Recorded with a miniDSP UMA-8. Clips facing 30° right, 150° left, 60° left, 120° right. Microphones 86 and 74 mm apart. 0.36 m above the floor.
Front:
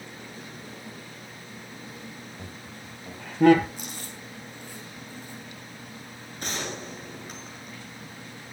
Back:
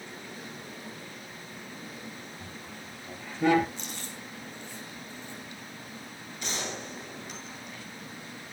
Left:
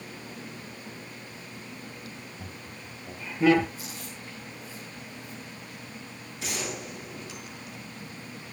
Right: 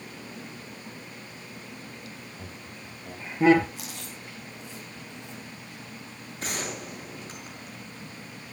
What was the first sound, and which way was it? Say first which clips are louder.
Laughter: front 1 dB, even; 55° right.